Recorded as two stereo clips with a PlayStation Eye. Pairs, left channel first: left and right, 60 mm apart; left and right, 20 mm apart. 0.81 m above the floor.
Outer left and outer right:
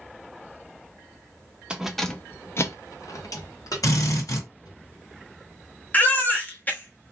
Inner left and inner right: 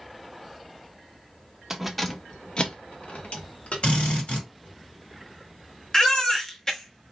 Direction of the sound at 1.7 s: 15° right (ahead or behind).